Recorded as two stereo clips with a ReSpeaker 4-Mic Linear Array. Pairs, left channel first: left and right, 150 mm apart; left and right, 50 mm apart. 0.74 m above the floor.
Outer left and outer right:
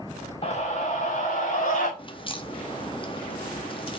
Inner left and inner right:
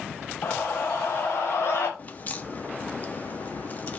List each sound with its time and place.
0.4 s a scream: 40° left (ahead or behind), 1.1 m; by 1.9 s 55° left (ahead or behind), 2 m
2.0 s a crack: 35° left (ahead or behind), 0.8 m